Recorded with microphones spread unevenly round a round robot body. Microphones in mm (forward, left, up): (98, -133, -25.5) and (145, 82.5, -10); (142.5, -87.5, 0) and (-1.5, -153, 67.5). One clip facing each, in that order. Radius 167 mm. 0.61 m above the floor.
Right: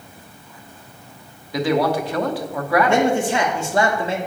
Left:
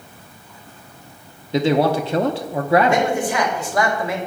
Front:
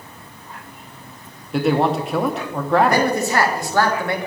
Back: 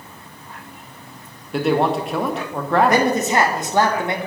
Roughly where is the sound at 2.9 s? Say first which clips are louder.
Right 2 dB, back 1 dB; ahead right.